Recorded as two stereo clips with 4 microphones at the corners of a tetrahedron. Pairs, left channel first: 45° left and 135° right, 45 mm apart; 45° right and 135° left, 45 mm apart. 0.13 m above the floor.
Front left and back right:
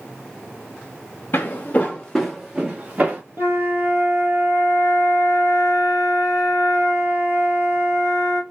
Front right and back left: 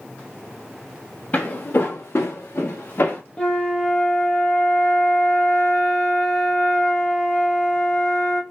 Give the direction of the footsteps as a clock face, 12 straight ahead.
12 o'clock.